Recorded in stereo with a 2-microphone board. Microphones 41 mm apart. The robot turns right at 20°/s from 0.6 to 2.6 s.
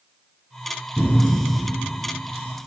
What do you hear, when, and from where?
1.0 s a cupboard door: 10° left (ahead or behind), 1.7 m; by 1.4 s 20° left (ahead or behind), 1.7 m